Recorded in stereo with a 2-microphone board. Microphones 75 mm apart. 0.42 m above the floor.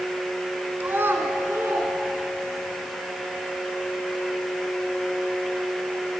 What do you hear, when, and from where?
0.8 s a child speaking: 30° right (ahead or behind), 2.5 m; by 2.7 s 40° right (ahead or behind), 4 m